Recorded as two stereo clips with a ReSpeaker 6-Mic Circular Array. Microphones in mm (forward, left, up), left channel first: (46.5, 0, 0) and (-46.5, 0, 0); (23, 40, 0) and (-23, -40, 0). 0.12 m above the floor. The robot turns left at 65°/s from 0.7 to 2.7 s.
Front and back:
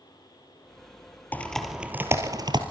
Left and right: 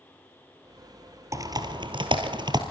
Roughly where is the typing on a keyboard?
Right.